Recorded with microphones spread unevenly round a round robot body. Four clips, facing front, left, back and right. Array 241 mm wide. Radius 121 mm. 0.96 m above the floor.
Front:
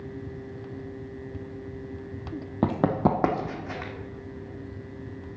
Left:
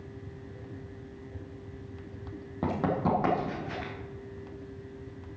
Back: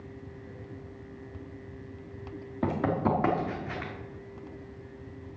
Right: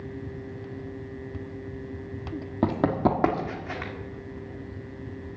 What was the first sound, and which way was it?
Running footsteps, 35° right.